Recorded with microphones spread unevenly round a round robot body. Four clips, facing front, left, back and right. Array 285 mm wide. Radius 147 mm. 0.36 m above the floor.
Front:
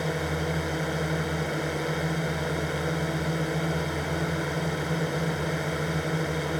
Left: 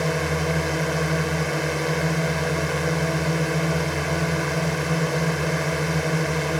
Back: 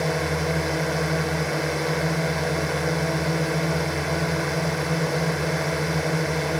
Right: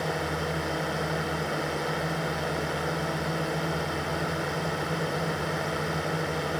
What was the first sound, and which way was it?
A drone, 130° left.